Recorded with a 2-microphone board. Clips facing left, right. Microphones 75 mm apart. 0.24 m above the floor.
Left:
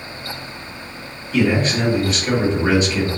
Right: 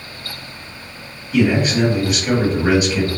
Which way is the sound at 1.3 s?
10° right (ahead or behind).